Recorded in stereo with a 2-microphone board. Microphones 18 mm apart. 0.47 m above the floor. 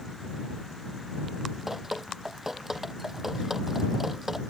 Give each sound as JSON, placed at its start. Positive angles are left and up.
{"t": 1.7, "sound": "dripping", "side_deg": -15}